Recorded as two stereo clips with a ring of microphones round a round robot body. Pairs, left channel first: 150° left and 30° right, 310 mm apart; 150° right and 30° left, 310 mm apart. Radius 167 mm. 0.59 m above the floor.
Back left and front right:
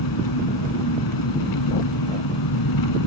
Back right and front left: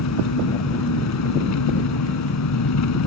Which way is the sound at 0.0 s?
170° left.